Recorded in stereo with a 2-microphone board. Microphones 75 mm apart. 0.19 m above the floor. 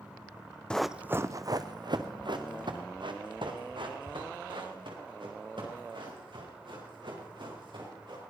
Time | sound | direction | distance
0.7 | running footsteps | 10° left (ahead or behind) | 0.6 m